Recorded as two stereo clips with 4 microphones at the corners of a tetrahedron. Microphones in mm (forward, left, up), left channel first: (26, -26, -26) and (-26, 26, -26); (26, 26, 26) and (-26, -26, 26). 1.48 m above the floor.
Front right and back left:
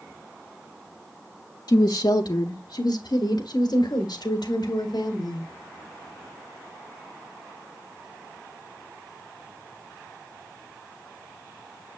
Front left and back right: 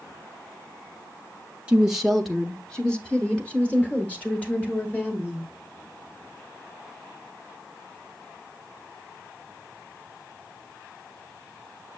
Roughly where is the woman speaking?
Ahead right.